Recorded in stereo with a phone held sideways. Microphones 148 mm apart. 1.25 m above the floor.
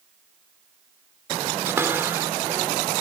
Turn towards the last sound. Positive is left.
turn(degrees=-15)  # may be behind; listen again after turning